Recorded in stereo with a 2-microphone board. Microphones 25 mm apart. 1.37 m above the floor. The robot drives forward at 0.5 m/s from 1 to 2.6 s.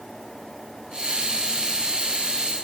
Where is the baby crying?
I don't hear a baby crying.